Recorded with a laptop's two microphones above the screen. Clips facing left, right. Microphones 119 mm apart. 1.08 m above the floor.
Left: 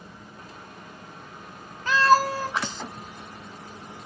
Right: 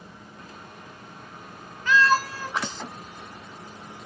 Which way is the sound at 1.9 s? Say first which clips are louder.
Left 2 dB; 35° left (ahead or behind).